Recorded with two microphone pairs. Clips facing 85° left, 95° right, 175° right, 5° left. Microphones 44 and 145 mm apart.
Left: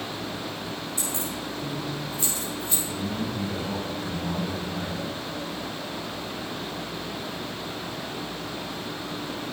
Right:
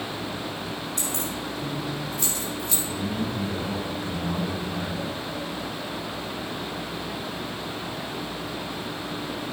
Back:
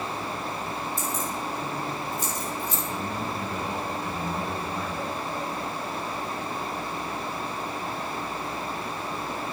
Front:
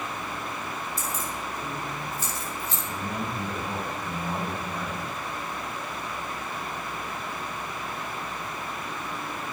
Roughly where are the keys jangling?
Right.